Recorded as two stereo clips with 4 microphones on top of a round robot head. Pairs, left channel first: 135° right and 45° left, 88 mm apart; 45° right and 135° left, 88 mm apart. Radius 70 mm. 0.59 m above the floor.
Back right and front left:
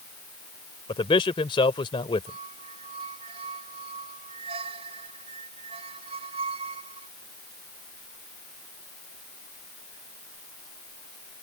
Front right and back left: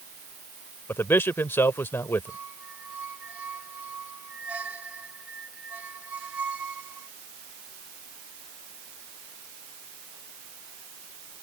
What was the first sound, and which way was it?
A man speaking, 110° right.